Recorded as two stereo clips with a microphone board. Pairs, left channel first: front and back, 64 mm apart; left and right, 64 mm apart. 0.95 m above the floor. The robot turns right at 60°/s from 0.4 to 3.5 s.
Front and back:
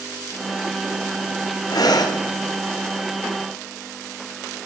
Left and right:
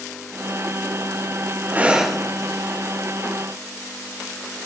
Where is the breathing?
25° right, 0.5 m; by 2.2 s 5° left, 0.5 m.